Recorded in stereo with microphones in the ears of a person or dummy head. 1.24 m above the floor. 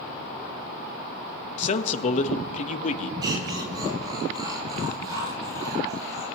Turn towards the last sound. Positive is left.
turn(degrees=-20)  # may be behind; listen again after turning